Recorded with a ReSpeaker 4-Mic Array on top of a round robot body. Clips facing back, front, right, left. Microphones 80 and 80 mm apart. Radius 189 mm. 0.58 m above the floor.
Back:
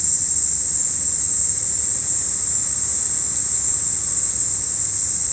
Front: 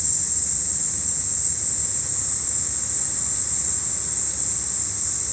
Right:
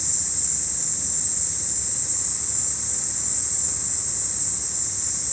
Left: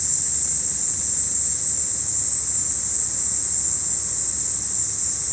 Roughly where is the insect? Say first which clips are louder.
Even, even; behind.